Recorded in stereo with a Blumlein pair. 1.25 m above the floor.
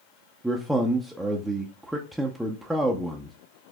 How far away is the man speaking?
About 0.6 m.